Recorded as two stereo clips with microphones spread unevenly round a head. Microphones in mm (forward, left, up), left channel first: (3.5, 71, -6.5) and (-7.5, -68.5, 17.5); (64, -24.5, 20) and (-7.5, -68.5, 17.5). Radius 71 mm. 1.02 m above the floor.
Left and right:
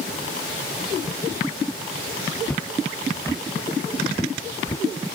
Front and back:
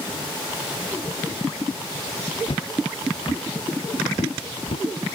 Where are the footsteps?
5° left; by 4.8 s 20° left.